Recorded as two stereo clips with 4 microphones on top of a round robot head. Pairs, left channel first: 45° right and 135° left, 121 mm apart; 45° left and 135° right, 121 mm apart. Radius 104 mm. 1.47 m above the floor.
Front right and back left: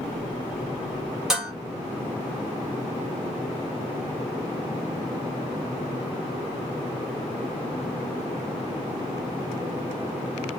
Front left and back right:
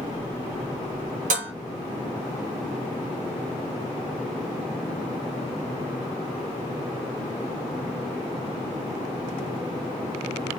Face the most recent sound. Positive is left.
turn(degrees=-140)